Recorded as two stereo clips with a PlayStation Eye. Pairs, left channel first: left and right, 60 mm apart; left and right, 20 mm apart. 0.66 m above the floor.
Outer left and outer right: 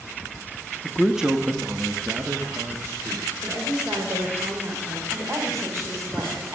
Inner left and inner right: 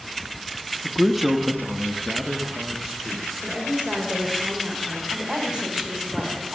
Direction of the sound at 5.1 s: 50° right (ahead or behind).